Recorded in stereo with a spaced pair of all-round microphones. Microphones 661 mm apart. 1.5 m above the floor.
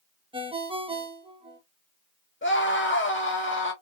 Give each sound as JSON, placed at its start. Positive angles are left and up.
{"t": 0.3, "sound": "a ringtone", "side_deg": -10, "distance_m": 0.5}
{"t": 2.4, "sound": "a scream", "side_deg": 20, "distance_m": 0.5}